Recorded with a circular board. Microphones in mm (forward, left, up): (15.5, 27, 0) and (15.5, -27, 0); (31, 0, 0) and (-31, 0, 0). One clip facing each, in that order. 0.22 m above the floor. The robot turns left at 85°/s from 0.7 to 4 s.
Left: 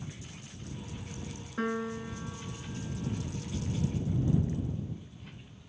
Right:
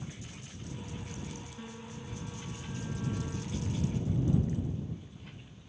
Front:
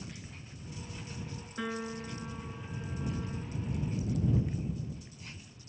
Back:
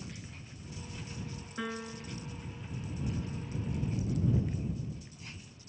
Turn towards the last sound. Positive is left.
turn(degrees=-110)